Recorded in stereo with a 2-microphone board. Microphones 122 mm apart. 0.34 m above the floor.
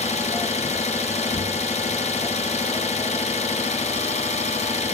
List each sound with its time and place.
0.0 s an engine running: 65° left (ahead or behind), 1.8 m